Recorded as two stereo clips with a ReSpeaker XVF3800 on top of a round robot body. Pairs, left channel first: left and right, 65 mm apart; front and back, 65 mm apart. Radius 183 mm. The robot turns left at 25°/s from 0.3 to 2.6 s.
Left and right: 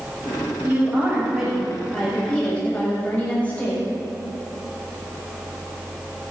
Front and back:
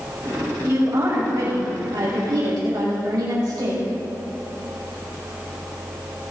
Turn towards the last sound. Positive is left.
turn(degrees=160)